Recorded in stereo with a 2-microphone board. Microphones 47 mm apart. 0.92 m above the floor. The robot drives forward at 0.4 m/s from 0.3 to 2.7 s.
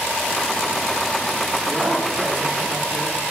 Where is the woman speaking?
55° right (ahead or behind), 9 m.